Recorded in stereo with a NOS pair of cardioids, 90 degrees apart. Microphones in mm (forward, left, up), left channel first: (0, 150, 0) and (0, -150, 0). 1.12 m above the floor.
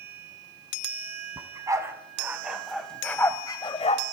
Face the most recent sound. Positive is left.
turn(degrees=30)